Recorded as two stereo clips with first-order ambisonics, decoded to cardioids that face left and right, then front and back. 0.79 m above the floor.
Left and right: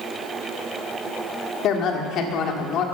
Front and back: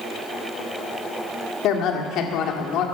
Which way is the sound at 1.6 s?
40° left.